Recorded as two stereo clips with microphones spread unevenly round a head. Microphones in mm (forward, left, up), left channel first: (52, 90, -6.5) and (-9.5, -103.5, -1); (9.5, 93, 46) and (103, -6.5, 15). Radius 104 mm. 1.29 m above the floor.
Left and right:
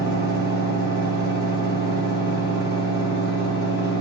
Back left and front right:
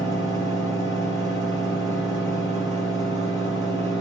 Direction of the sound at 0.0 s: 90° right.